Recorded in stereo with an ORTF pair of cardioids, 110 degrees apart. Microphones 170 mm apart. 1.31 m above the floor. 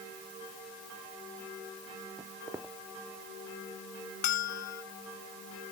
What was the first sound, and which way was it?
Footsteps, 15° right.